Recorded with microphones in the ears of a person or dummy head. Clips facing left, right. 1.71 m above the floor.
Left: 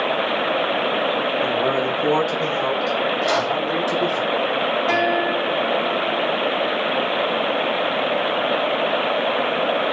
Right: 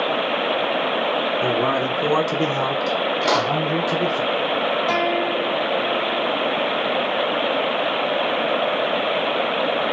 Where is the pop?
70° right (ahead or behind), 1.8 m.